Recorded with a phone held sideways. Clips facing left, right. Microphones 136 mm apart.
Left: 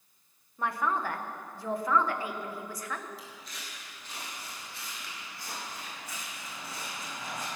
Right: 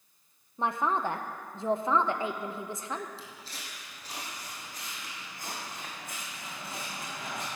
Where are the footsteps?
25° right (ahead or behind), 3 m; by 7.5 s 55° right (ahead or behind), 5.5 m.